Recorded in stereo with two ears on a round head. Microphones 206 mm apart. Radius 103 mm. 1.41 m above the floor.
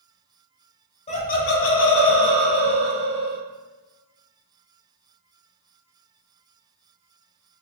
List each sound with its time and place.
1.1 s laughter: 25° left (ahead or behind), 0.7 m; by 3.4 s 45° left (ahead or behind), 1.0 m